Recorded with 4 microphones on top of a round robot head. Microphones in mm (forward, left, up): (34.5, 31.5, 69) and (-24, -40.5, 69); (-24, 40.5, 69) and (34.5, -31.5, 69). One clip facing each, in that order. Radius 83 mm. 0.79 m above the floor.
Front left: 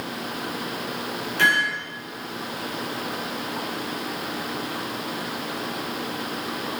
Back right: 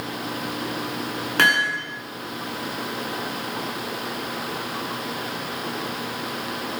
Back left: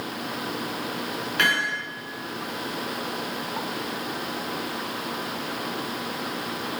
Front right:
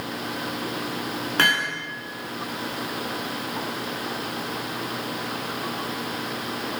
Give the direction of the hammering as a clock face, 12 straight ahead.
3 o'clock.